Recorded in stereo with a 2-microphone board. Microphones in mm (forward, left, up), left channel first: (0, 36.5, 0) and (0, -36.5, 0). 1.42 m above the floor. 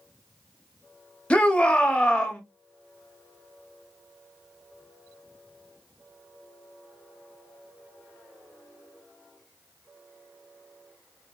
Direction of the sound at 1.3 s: 15° left (ahead or behind).